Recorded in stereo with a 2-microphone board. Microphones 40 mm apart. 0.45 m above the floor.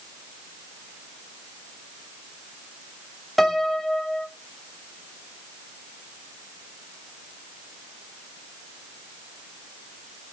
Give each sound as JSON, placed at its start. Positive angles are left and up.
{"t": 3.4, "sound": "a piano", "side_deg": 0, "distance_m": 0.6}